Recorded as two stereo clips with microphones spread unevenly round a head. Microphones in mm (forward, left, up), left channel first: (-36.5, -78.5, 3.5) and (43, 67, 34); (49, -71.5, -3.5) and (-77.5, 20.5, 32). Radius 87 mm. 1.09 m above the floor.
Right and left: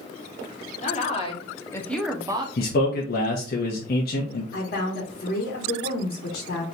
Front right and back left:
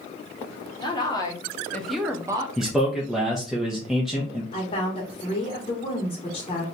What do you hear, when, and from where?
0.8 s a woman speaking: 85° right, 1.2 m; by 2.5 s 95° left, 0.6 m
2.6 s a man speaking: 125° right, 0.8 m
4.5 s a woman speaking: 90° right, 1.0 m